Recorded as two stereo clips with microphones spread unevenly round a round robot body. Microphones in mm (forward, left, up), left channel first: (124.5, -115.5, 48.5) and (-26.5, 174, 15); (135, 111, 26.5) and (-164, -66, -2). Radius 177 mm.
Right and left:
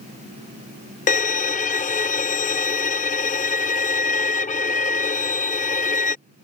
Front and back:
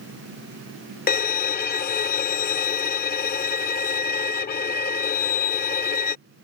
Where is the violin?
10° right.